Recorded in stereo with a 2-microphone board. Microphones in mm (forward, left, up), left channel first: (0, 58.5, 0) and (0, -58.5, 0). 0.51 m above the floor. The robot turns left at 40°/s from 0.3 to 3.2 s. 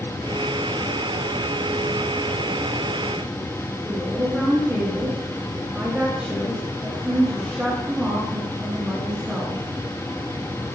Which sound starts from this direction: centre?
A woman speaking, at 3.9 s.